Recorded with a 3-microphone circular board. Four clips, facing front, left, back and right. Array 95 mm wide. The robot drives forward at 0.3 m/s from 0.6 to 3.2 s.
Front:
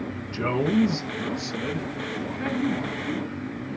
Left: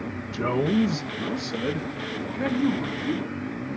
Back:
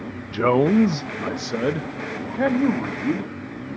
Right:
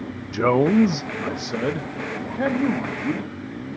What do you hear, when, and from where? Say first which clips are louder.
0.3 s a man speaking: right 6 dB, back 7 dB; 135° right, 0.6 m; by 3.3 s 160° right, 1.3 m